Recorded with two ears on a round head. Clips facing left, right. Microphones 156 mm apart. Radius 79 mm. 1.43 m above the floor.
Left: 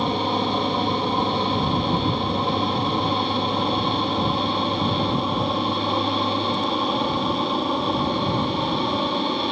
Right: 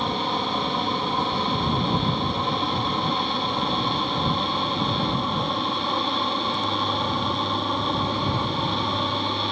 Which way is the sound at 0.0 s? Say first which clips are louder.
Left 4 dB; 10° left (ahead or behind).